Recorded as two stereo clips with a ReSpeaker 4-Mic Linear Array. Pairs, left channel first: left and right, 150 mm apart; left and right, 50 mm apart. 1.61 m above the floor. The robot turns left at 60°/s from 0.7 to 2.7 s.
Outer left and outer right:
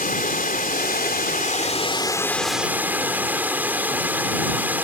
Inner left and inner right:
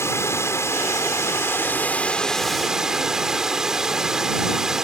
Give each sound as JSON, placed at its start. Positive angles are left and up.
{"t": 0.0, "sound": "running water", "azimuth_deg": 110}